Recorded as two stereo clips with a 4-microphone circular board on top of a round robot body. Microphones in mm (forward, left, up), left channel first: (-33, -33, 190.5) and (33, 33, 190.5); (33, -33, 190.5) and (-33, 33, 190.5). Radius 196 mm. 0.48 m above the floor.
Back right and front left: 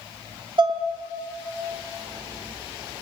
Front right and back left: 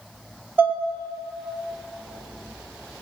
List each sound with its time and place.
0.6 s dishes clattering: 65° left, 1.0 m